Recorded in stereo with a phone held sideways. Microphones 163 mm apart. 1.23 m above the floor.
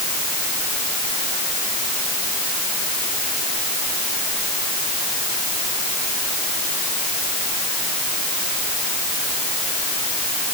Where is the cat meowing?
I don't hear a cat meowing.